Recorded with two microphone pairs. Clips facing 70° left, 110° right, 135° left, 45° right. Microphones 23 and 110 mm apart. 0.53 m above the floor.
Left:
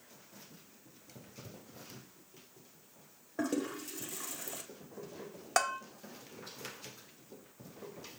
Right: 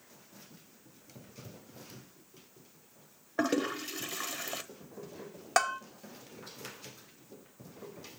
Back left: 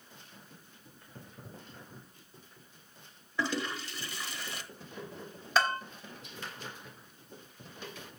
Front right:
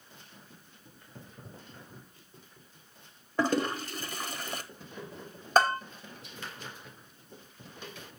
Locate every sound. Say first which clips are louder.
3.4 s a toilet flushing: right 5 dB, front right 6 dB; 80° right, 0.8 m
5.6 s a bell: right 3 dB, front right 5 dB; 40° right, 1.0 m